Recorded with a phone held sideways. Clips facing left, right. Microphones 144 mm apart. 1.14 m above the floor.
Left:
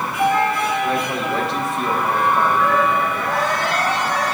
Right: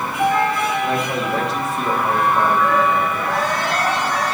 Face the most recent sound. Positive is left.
turn(degrees=0)  # may be behind; listen again after turning